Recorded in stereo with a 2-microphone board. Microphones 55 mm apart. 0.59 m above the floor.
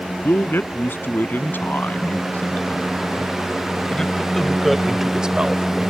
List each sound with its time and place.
0.2 s a man speaking: 45° left (ahead or behind); by 5.9 s 30° right (ahead or behind)